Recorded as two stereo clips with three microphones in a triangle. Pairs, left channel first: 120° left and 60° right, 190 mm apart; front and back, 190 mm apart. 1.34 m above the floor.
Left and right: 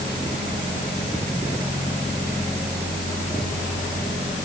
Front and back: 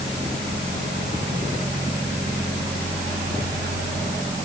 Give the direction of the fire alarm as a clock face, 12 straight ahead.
I don't hear a fire alarm.